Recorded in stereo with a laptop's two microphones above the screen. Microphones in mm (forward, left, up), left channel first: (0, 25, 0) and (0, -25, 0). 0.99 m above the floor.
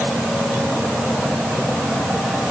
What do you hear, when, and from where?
Only background noise.